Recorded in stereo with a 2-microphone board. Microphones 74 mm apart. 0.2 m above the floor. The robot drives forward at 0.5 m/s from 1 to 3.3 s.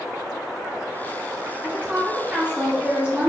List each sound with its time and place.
1.6 s a woman speaking: 20° right (ahead or behind), 1.4 m; by 3.3 s 15° right (ahead or behind), 1.5 m